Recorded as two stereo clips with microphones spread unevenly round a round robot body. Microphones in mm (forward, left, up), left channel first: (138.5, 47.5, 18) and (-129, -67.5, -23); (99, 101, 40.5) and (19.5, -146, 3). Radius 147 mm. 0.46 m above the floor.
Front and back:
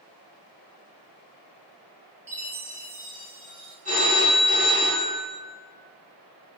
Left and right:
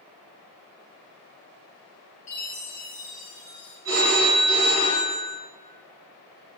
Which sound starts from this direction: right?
A phone ringing, at 3.9 s.